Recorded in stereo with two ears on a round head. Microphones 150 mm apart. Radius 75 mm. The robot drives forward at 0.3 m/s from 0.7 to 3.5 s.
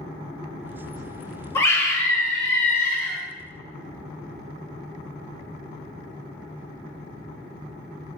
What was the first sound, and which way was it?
A scream, 15° left (ahead or behind).